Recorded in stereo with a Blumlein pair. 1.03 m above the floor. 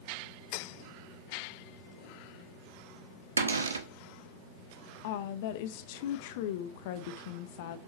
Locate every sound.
3.4 s a cupboard door: 70° right, 0.7 m
5.0 s a woman speaking: 50° left, 0.7 m